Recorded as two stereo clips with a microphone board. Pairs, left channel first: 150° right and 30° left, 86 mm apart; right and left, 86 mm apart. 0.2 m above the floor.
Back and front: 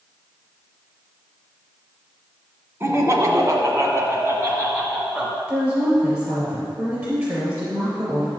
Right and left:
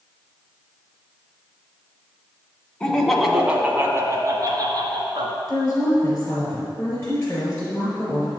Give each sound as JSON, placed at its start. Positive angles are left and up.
{"t": 2.8, "sound": "laughter", "azimuth_deg": -15, "distance_m": 1.7}
{"t": 5.5, "sound": "a woman speaking", "azimuth_deg": -25, "distance_m": 4.0}